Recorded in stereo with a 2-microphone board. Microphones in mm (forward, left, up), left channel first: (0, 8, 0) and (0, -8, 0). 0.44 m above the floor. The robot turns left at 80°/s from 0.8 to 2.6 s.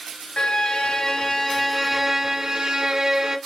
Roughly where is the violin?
Left.